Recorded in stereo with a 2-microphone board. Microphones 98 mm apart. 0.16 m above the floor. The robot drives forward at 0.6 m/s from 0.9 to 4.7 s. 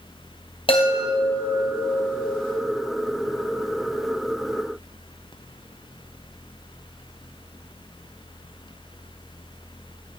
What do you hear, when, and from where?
0.7 s a chime: 65° left (ahead or behind), 2.5 m; by 2.5 s 50° left (ahead or behind), 3 m